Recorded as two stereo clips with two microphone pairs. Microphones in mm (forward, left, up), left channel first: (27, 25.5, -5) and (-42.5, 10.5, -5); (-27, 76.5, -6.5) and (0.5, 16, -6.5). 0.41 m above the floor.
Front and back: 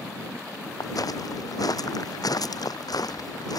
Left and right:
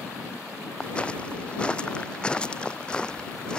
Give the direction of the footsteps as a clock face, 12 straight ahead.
11 o'clock.